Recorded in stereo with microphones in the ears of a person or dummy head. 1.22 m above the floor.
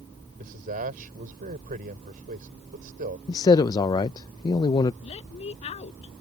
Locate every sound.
0.4 s a man speaking: 50° right (ahead or behind)
3.3 s a man speaking: 25° left (ahead or behind)
5.0 s a woman speaking: 35° left (ahead or behind)